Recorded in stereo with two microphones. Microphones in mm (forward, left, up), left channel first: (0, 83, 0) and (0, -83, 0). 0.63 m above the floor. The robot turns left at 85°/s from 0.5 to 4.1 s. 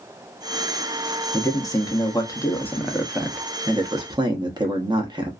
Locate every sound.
1.3 s a man speaking: 15° left (ahead or behind), 0.6 m; by 5.3 s 25° right (ahead or behind), 0.6 m